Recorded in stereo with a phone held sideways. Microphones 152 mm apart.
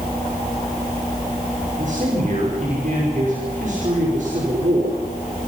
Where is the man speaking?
60° right (ahead or behind), 5.5 m.